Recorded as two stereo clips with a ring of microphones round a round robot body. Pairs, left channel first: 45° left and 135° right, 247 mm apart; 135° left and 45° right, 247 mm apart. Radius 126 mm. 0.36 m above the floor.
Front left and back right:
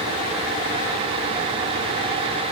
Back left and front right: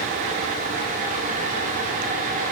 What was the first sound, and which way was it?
Only background noise.